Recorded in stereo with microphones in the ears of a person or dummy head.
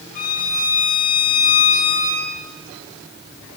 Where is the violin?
45° left (ahead or behind), 4.5 m.